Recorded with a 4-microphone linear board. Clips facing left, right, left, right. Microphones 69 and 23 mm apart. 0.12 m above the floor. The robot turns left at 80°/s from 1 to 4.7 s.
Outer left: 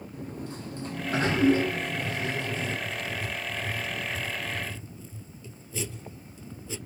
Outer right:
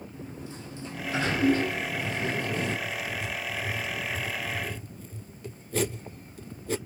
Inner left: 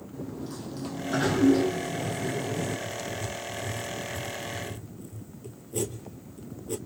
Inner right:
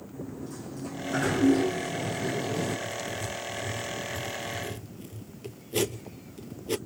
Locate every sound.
0.1 s a sliding door: 65° left, 4.5 m; by 2.8 s 75° right, 4.5 m
2.9 s writing: 40° left (ahead or behind), 0.7 m; by 6.8 s 60° right (ahead or behind), 0.7 m